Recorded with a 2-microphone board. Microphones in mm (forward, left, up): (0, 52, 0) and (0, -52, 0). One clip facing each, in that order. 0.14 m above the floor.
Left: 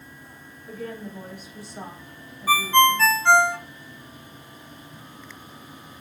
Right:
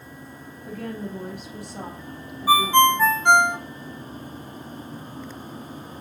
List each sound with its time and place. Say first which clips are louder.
0.7 s a woman speaking: right 2 dB; 65° right (ahead or behind), 3 m; by 3.1 s 70° right (ahead or behind), 4.5 m
2.5 s a ringtone: right 2 dB; 20° right (ahead or behind), 0.5 m